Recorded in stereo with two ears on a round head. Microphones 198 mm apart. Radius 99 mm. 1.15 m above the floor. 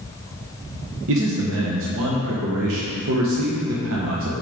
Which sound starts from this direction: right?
A man speaking, at 1.1 s.